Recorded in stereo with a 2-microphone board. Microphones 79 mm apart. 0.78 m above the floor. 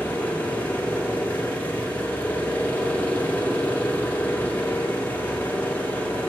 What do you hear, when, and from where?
0.0 s an engine running: 20° left (ahead or behind), 1.3 m